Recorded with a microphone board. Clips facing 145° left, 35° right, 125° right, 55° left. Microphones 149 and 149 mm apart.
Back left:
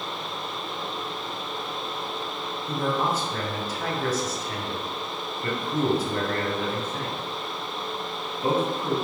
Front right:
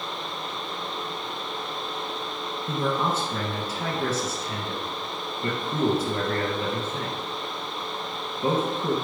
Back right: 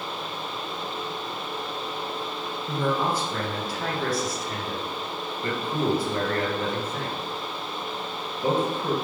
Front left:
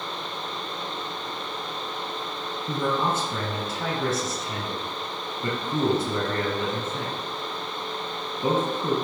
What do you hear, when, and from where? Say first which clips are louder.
2.7 s a man speaking: even, even; 10° left, 2 m